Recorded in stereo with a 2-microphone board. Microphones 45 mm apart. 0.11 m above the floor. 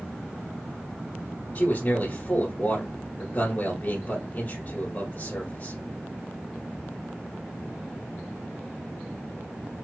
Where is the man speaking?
40° left (ahead or behind), 1.6 m.